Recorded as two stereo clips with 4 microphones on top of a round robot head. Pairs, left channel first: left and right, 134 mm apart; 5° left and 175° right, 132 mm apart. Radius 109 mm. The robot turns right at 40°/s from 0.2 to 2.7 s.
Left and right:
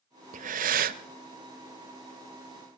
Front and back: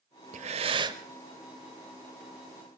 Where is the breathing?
130° right, 0.6 m; by 1.0 s 105° right, 0.6 m.